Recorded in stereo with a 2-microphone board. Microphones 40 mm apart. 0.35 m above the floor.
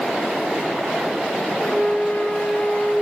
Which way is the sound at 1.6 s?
45° left (ahead or behind).